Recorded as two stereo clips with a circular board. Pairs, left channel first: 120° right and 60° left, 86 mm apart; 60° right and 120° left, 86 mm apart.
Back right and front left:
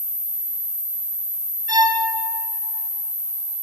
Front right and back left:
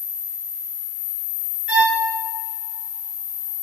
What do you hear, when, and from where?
1.7 s a violin: 45° left, 0.8 m